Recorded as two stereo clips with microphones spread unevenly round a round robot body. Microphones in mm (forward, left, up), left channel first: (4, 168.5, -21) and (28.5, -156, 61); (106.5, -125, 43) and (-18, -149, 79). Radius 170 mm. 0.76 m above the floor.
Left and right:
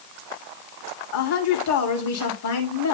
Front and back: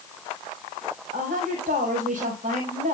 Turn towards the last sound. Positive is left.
turn(degrees=135)